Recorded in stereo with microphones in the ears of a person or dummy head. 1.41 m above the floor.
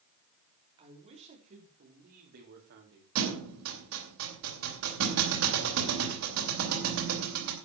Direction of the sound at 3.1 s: 75° right (ahead or behind).